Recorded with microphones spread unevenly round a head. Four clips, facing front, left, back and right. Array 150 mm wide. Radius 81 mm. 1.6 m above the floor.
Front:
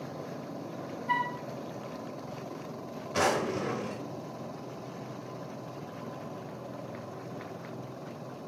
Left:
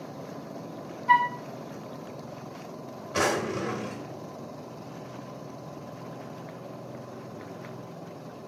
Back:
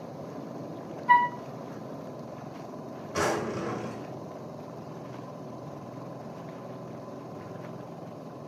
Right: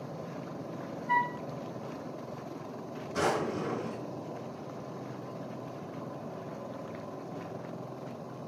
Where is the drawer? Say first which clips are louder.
Left 3 dB, front 1 dB; 95° left, 1.2 m.